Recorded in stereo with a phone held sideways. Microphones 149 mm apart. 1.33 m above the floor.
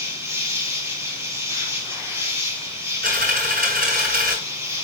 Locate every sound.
0.0 s an insect: 15° right (ahead or behind), 2.5 m
3.0 s a dropped coin: 75° right (ahead or behind), 6.5 m